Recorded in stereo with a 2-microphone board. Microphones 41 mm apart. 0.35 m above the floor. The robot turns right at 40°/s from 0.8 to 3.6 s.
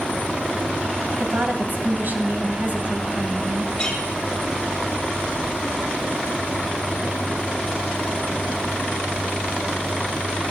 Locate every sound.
1.2 s a woman speaking: 115° right, 2 m; by 3.7 s 20° right, 2 m
3.8 s a clink: 20° left (ahead or behind), 5.5 m